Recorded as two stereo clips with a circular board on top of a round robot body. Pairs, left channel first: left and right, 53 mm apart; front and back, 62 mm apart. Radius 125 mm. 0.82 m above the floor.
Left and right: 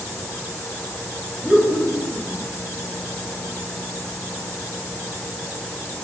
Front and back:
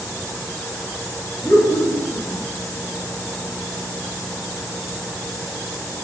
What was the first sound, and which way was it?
Laughter, 25° right.